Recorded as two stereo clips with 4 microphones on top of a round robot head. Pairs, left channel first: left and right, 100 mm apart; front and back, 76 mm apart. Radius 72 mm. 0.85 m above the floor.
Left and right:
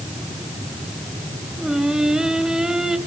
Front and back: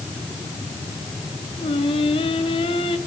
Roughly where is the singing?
Ahead.